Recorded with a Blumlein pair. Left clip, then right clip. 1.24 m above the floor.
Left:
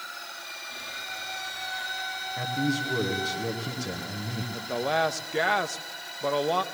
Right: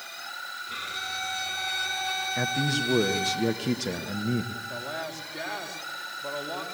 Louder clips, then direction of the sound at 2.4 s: Left 1 dB; 20° right.